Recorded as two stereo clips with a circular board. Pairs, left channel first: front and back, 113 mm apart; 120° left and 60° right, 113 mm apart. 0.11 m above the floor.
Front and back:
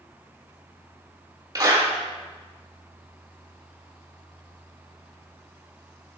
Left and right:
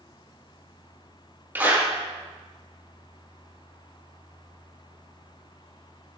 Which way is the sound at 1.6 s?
130° right.